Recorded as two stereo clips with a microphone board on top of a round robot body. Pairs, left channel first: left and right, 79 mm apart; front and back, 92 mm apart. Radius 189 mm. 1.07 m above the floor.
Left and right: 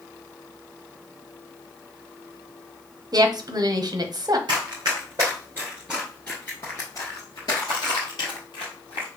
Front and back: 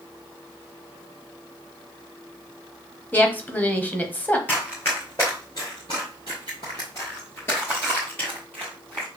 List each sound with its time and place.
3.1 s a woman speaking: 65° right, 1.1 m
4.5 s running footsteps: 65° right, 1.3 m; by 9.1 s 75° left, 1.9 m